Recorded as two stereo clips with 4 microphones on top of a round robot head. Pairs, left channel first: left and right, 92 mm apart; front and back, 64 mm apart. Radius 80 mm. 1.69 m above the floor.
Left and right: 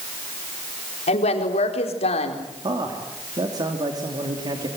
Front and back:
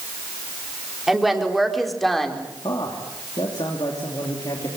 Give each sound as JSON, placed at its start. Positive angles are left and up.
{"t": 1.1, "sound": "a woman speaking", "azimuth_deg": 95, "distance_m": 4.0}
{"t": 2.6, "sound": "a man speaking", "azimuth_deg": -45, "distance_m": 3.0}